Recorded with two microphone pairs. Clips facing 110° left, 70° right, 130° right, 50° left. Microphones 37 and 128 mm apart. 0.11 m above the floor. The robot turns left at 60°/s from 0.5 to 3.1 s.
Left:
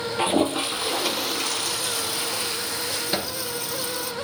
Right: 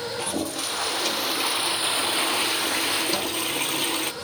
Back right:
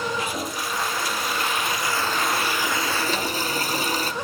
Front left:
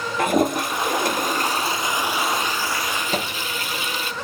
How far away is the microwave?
About 1.3 m.